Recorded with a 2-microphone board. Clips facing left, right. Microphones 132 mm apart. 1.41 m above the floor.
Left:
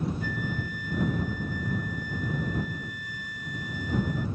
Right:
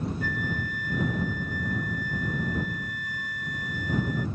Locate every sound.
0.2 s a flute: 60° right (ahead or behind)